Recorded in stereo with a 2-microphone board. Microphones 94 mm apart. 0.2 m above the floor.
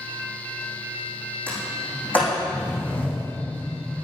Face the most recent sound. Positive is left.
turn(degrees=15)  # may be behind; listen again after turning